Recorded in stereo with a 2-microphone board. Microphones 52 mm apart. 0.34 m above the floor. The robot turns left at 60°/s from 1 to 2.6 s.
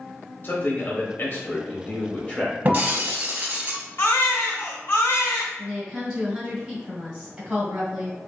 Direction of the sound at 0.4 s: 115° left.